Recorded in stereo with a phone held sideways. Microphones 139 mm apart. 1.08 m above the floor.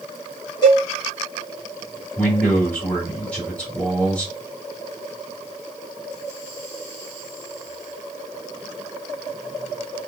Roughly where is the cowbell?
Left.